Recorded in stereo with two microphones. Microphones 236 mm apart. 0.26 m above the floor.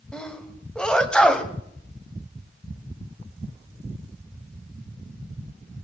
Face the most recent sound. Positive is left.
turn(degrees=5)  # may be behind; listen again after turning